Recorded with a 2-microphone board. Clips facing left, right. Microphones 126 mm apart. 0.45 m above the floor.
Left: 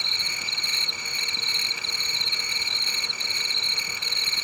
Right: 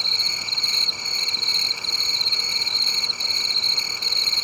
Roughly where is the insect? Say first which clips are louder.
Right 1 dB; right.